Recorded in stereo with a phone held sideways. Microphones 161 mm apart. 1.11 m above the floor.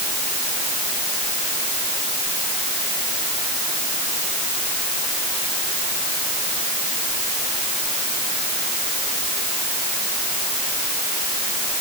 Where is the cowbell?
I don't hear a cowbell.